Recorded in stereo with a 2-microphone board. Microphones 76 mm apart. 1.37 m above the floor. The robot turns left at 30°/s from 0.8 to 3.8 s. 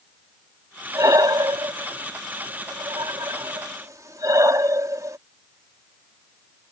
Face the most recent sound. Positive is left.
turn(degrees=-50)  # may be behind; listen again after turning